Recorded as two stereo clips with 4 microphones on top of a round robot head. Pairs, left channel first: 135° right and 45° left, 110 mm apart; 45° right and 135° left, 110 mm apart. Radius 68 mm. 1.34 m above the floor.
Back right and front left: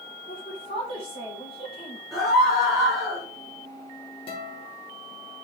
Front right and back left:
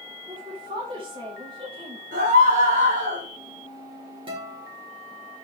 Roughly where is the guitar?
Behind.